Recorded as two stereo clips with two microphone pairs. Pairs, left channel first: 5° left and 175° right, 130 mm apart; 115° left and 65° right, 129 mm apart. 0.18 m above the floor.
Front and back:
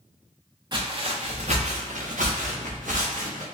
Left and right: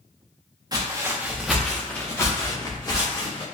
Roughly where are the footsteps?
Behind right.